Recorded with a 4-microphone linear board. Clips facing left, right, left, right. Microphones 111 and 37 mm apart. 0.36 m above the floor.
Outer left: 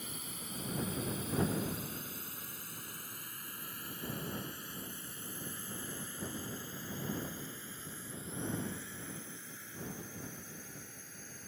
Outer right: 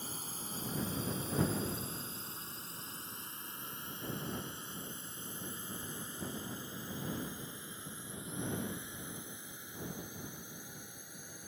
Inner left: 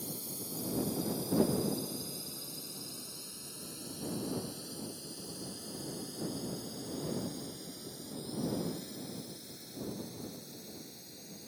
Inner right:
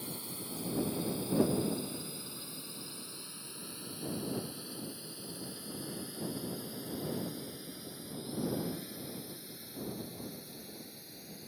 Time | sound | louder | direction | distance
0.0 | a drone | outer right 1 dB, even | 30° right (ahead or behind) | ?